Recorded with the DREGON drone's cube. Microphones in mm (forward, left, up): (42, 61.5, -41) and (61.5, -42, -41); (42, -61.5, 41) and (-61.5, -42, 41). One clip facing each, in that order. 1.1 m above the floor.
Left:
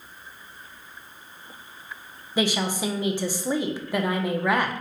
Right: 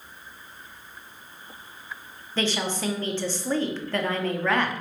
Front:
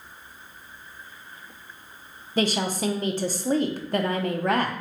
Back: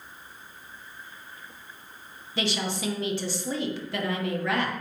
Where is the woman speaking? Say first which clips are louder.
Left 2 dB, front 5 dB; 25° left, 0.5 m.